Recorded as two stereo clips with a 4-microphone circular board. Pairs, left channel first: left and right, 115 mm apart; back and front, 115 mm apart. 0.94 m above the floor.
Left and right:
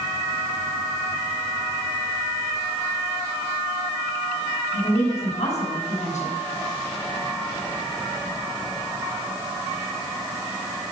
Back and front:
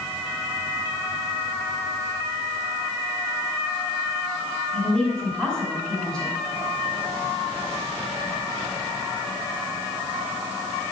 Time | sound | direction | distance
4.7 | a woman speaking | 95° left | 6 m